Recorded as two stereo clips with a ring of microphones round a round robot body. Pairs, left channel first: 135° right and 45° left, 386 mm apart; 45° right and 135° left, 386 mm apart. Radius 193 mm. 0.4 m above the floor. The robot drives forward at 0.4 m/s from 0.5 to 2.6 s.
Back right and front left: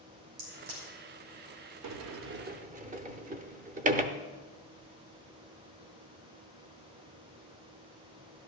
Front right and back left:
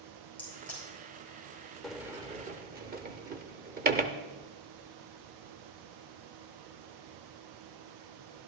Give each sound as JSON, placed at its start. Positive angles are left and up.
{"t": 0.4, "sound": "a crack", "azimuth_deg": 40, "distance_m": 6.0}
{"t": 1.8, "sound": "a sliding door", "azimuth_deg": 45, "distance_m": 0.6}